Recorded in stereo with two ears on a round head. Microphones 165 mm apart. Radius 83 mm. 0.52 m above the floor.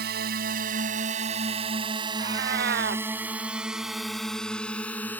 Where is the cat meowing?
60° right (ahead or behind).